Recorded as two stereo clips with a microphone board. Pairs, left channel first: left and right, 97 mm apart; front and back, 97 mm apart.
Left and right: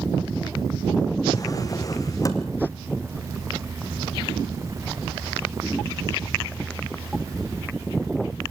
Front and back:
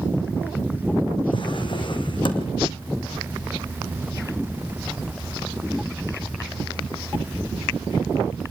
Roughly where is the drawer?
Ahead left.